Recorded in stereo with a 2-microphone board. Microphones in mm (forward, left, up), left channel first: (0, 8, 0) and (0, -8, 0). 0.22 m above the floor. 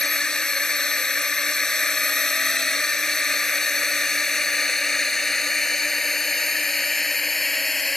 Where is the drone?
55° left (ahead or behind); by 8.0 s 15° left (ahead or behind).